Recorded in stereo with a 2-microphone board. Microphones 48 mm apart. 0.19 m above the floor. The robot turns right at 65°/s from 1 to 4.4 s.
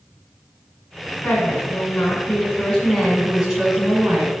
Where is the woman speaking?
50° left, 1.5 m; by 4.3 s 110° right, 1.5 m.